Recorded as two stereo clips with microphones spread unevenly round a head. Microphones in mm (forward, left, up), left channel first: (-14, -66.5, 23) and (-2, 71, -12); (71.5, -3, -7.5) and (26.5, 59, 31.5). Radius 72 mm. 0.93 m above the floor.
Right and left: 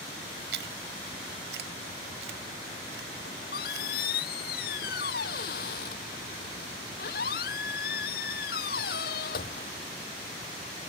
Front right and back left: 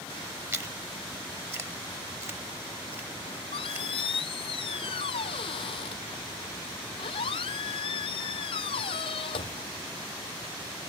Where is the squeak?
70° right.